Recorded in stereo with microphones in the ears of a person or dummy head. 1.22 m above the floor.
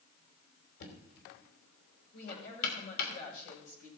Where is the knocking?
65° left (ahead or behind), 3 m.